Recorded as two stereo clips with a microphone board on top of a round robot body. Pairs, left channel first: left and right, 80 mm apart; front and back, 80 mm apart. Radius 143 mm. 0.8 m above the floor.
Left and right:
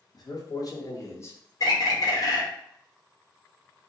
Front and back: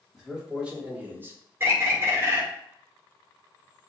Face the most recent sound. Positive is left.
turn(degrees=125)